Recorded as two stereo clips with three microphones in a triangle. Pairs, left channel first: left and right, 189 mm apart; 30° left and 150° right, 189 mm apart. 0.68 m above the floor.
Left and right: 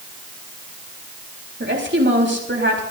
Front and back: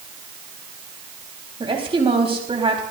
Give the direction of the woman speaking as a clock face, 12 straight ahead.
3 o'clock.